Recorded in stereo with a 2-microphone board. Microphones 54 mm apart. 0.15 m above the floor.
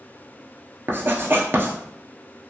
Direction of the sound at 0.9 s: 45° right (ahead or behind).